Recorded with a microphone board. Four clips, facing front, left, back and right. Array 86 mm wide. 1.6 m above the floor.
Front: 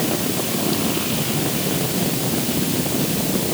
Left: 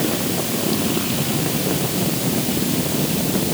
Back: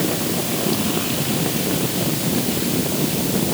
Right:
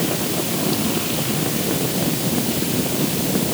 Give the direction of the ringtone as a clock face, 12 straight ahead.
No ringtone in this recording.